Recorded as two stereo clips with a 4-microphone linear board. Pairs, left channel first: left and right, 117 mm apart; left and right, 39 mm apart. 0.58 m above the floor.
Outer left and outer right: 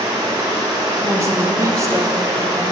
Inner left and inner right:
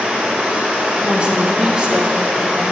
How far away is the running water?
About 1.6 m.